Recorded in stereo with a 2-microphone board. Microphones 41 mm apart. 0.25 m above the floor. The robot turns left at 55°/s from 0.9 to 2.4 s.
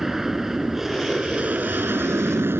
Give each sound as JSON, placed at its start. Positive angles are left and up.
{"t": 0.0, "sound": "an aircraft", "azimuth_deg": -10}